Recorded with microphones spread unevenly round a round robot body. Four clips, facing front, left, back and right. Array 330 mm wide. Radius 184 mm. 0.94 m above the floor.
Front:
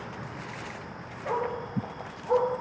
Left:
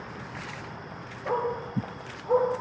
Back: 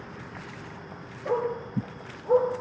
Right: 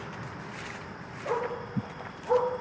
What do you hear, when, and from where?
1.2 s a dog barking: straight behind, 7.5 m; by 2.5 s 175° right, 8 m